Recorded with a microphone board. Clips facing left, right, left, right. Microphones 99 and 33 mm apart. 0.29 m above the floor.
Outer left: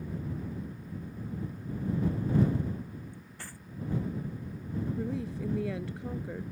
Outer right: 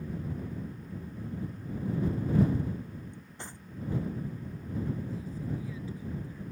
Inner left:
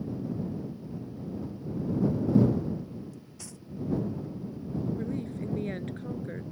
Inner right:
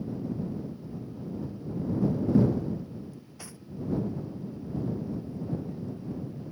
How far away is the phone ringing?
No phone ringing in this recording.